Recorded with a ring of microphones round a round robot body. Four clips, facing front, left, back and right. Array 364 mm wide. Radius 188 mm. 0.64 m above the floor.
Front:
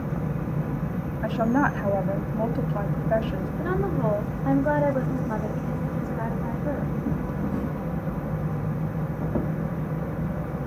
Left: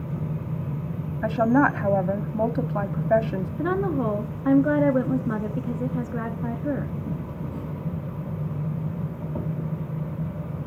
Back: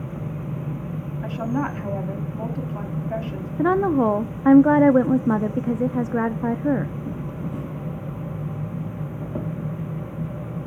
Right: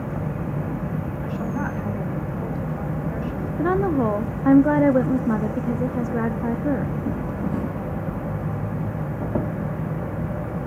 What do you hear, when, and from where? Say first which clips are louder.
0.0 s an insect: right 4 dB, front 3 dB; 75° right, 0.9 m
1.2 s a woman speaking: left 11 dB, front 3 dB; 80° left, 1.3 m
3.6 s a woman speaking: right 4 dB, back 9 dB; 160° right, 0.9 m